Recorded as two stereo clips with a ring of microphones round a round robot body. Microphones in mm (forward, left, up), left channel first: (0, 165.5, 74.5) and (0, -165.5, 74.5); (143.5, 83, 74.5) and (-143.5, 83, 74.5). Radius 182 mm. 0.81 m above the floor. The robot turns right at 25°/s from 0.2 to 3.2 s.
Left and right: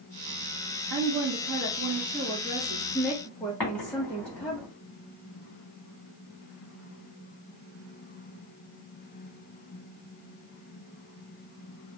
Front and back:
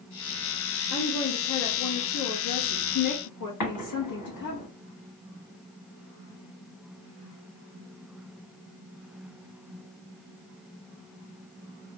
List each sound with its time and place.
0.9 s a woman speaking: 55° right, 1.1 m; by 4.6 s 5° left, 1.1 m
3.6 s an explosion: 5° left, 2 m